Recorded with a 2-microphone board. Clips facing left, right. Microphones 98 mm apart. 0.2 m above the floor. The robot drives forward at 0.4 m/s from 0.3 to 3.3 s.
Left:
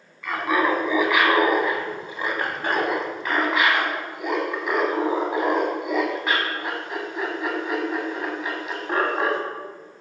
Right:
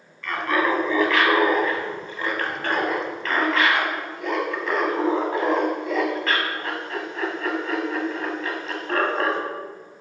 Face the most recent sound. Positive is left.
turn(degrees=15)  # may be behind; listen again after turning